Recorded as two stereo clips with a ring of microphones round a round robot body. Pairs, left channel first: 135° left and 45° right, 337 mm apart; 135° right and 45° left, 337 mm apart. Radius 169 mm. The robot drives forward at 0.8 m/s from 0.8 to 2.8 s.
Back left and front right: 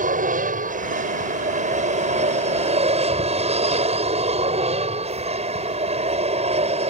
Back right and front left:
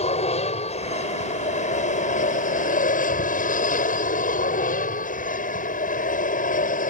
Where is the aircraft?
85° right; by 6.9 s 95° right.